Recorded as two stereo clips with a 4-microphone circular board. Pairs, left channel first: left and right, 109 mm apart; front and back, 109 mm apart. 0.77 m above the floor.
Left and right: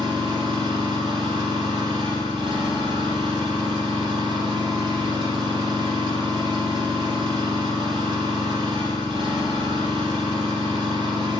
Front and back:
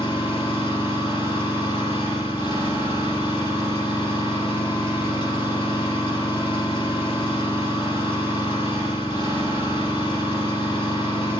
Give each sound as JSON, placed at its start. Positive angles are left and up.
{"t": 0.0, "sound": "an engine running", "azimuth_deg": -40, "distance_m": 4.5}